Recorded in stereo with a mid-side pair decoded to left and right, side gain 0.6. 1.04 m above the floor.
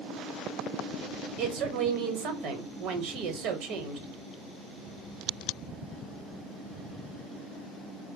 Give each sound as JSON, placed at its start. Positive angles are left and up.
{"t": 1.4, "sound": "a woman speaking", "azimuth_deg": -65, "distance_m": 1.4}